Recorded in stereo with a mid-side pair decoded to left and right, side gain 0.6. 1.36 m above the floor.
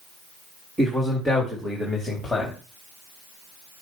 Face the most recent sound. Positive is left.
turn(degrees=15)